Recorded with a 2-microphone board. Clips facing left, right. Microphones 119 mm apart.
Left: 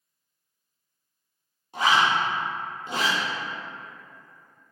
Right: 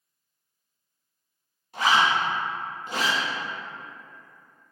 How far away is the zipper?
About 1.0 m.